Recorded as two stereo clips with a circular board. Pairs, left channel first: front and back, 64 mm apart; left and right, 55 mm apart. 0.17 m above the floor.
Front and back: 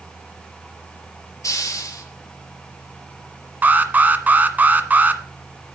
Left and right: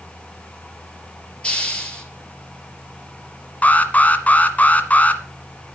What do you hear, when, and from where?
1.4 s a hiss: 25° left, 4 m
3.6 s an alarm: 130° left, 1.4 m